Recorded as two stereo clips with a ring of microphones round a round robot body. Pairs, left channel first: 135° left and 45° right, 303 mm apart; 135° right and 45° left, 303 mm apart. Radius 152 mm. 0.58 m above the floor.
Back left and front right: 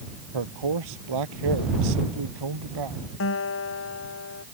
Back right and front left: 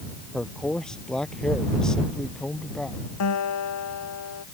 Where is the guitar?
175° right.